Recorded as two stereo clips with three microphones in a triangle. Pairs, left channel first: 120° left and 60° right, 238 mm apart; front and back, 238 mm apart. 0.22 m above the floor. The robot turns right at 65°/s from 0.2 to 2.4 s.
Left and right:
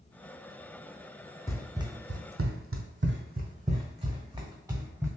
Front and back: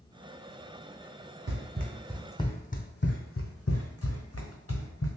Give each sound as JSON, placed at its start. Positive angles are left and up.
{"t": 1.5, "sound": "running footsteps", "azimuth_deg": -165, "distance_m": 0.8}